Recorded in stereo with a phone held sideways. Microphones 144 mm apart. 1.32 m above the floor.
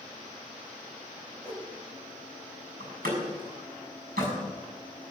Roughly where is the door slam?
Right.